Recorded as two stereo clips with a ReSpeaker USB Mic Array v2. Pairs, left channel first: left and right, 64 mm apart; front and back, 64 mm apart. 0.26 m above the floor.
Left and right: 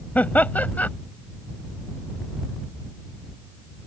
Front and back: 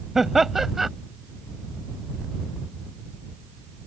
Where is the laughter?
100° left.